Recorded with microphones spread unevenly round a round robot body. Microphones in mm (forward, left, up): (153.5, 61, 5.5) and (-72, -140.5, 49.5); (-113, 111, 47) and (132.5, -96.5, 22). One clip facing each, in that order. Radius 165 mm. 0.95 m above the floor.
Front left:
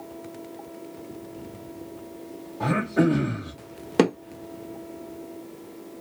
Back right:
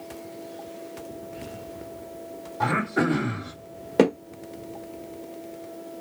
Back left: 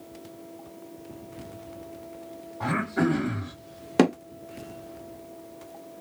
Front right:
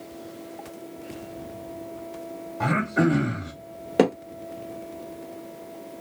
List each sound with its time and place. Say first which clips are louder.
2.6 s throat clearing: front left 3 dB, front right 3 dB; 80° right, 1.7 m
4.0 s hammering: back right 1 dB, even; 105° left, 0.6 m